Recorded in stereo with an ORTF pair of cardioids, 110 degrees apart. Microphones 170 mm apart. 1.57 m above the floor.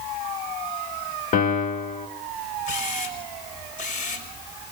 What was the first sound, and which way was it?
A piano, 50° left.